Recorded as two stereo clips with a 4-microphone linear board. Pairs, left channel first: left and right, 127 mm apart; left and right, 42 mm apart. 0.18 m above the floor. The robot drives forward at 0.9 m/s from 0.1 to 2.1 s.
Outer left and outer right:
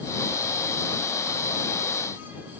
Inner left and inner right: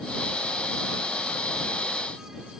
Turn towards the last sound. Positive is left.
No sound to turn to.